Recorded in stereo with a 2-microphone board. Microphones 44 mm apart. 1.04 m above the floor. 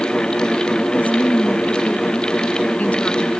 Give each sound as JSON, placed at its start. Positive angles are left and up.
{"t": 0.9, "sound": "a woman speaking", "side_deg": 35}